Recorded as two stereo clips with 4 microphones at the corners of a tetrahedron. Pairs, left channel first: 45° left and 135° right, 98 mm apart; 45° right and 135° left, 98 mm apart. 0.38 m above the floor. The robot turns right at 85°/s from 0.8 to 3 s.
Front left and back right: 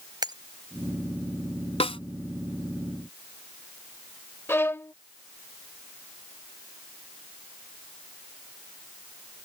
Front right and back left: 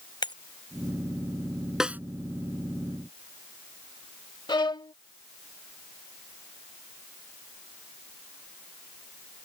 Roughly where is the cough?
I don't hear a cough.